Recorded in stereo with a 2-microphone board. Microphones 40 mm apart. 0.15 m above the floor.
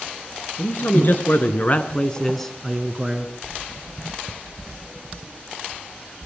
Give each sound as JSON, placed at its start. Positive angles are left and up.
{"t": 0.6, "sound": "a man speaking", "side_deg": 55, "distance_m": 3.0}